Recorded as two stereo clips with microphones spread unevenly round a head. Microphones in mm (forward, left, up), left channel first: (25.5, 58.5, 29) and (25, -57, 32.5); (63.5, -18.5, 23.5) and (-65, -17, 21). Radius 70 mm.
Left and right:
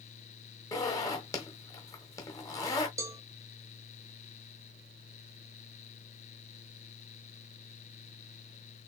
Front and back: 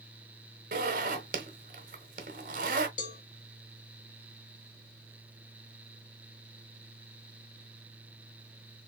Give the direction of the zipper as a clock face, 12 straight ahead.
7 o'clock.